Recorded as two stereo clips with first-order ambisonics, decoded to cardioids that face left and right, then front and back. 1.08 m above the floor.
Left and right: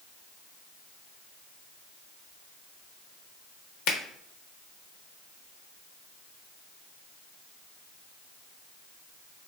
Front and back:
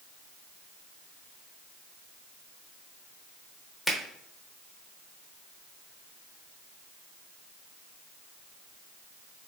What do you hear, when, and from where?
3.9 s a finger snap: 80° left, 0.8 m